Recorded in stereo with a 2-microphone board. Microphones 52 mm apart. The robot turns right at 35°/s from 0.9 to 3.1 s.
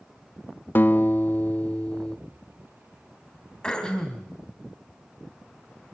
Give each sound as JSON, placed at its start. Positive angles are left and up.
{"t": 0.8, "sound": "a guitar", "azimuth_deg": 110, "distance_m": 0.6}
{"t": 3.6, "sound": "throat clearing", "side_deg": 15, "distance_m": 2.5}